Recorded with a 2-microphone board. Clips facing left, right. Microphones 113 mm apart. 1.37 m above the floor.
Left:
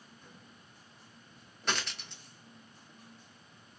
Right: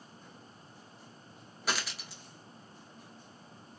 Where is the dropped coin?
5° right (ahead or behind), 0.6 m.